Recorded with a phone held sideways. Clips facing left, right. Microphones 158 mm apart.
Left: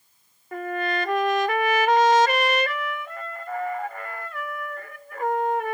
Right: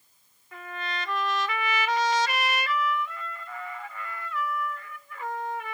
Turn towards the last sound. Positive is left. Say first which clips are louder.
# left 10 dB
turn(degrees=60)  # may be behind; listen again after turning